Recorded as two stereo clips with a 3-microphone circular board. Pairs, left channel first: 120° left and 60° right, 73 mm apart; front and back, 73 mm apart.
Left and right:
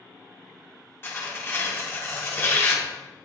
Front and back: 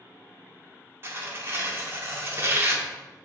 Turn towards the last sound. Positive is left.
turn(degrees=155)